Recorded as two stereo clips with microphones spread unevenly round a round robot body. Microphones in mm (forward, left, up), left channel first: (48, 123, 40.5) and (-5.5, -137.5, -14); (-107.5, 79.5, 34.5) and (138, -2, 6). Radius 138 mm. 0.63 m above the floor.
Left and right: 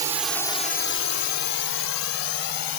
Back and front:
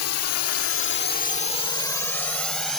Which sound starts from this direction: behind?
A drone, at 0.0 s.